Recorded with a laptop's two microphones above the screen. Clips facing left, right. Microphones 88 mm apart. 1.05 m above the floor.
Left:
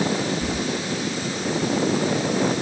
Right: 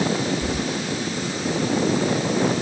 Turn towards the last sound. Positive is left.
turn(degrees=5)  # may be behind; listen again after turning